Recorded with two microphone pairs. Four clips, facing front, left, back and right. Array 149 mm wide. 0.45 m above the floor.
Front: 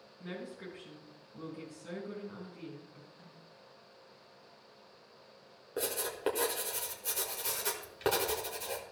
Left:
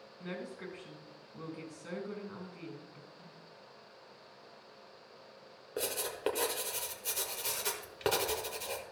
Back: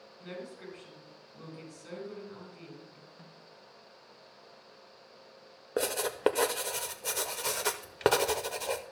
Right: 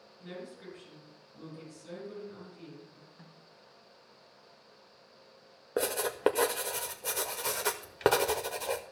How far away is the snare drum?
About 4.5 m.